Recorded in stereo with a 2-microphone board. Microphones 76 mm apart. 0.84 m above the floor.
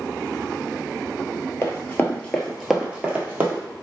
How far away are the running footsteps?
About 1.0 m.